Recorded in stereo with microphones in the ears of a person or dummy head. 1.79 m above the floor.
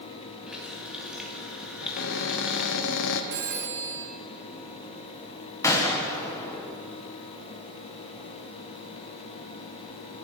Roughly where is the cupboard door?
Left.